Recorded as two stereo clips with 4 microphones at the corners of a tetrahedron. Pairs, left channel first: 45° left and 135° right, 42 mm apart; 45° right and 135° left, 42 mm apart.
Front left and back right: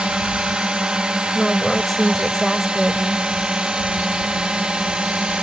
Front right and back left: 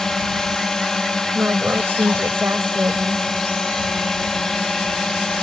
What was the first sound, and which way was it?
A drone, 105° right.